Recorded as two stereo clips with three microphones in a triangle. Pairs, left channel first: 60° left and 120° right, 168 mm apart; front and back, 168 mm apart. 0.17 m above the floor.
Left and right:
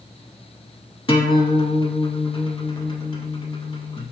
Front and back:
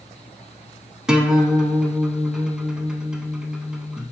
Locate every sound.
1.1 s a guitar: 95° left, 0.5 m